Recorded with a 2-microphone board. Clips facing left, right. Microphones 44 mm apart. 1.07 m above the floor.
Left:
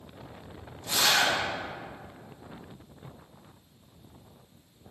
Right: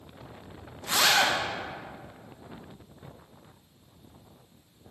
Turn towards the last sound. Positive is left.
turn(degrees=-65)  # may be behind; listen again after turning